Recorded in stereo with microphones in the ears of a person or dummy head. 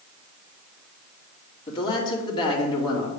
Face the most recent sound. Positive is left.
turn(degrees=25)  # may be behind; listen again after turning